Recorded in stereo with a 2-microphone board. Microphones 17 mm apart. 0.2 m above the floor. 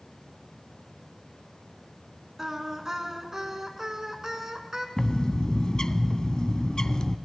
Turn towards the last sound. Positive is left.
turn(degrees=45)  # may be behind; listen again after turning